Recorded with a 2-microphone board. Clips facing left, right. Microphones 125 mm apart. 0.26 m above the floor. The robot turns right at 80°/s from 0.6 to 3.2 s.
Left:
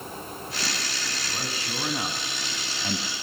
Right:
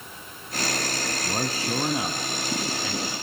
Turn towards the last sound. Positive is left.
turn(degrees=80)